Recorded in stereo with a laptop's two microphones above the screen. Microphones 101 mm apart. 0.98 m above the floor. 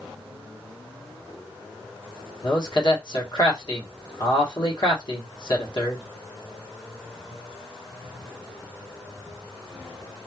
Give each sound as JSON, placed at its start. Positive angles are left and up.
{"t": 2.4, "sound": "a man speaking", "side_deg": 50, "distance_m": 1.2}